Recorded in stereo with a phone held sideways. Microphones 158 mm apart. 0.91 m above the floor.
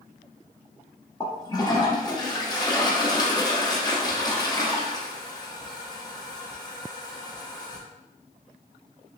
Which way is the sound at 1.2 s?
25° left (ahead or behind).